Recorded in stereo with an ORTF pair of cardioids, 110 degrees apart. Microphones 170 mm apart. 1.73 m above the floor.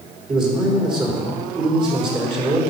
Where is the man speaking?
30° right, 4.5 m.